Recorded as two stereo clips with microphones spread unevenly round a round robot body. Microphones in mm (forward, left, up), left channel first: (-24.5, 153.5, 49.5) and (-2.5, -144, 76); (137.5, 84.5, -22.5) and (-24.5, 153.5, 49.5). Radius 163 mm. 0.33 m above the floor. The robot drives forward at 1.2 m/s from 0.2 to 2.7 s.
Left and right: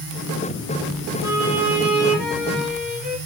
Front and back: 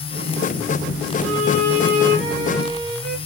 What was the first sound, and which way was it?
A violin, 170° right.